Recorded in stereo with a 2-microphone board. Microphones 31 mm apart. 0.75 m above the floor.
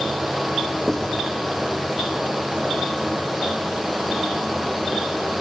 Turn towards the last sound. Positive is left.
turn(degrees=20)  # may be behind; listen again after turning